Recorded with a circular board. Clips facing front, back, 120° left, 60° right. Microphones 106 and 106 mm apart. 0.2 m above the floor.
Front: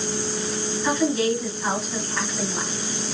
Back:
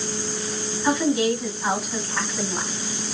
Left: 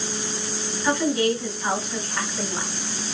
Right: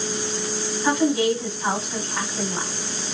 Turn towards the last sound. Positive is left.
turn(degrees=-110)